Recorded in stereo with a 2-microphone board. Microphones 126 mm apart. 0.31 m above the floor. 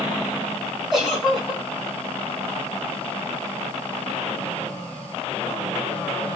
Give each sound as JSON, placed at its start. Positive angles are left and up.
{"t": 0.9, "sound": "a giggle", "side_deg": -5, "distance_m": 2.5}